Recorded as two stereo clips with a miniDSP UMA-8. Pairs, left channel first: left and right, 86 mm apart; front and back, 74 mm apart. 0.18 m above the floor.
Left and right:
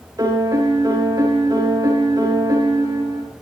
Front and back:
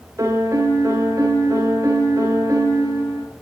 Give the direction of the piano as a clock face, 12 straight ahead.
4 o'clock.